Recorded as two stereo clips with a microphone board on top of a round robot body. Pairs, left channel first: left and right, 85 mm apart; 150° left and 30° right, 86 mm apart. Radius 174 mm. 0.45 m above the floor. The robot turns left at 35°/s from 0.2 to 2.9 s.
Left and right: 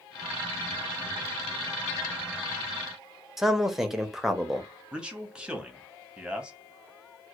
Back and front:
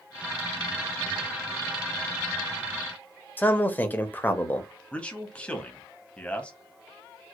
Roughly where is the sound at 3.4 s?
Behind.